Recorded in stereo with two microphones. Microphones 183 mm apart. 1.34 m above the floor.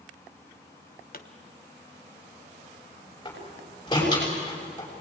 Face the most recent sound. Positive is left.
turn(degrees=20)  # may be behind; listen again after turning